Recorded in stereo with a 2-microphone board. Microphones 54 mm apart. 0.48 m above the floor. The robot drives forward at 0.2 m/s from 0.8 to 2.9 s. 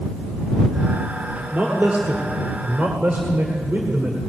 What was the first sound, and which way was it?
A man speaking, 40° right (ahead or behind).